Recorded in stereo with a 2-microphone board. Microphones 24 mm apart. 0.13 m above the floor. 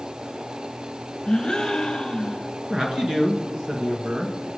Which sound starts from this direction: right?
A man speaking, at 2.7 s.